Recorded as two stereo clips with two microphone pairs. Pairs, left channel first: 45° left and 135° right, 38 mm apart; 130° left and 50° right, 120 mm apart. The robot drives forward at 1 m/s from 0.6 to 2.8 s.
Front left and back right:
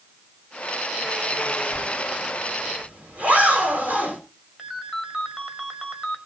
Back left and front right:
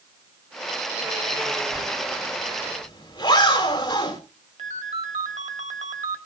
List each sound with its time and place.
1.7 s a zipper: 175° right, 3 m
4.6 s a ringtone: 55° right, 1.7 m